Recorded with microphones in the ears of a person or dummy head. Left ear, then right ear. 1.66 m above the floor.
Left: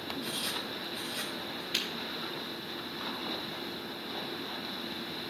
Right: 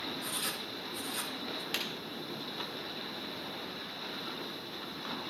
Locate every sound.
0.2 s writing: 55° right (ahead or behind), 1.4 m
1.7 s breaking glass: 50° right (ahead or behind), 1.6 m